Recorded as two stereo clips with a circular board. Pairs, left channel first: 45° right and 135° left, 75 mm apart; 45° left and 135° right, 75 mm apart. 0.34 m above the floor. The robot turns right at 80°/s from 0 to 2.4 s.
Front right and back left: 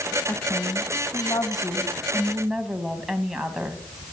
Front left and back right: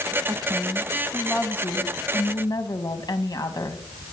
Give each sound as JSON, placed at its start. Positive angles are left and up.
{"t": 0.3, "sound": "a woman speaking", "azimuth_deg": -120, "distance_m": 2.5}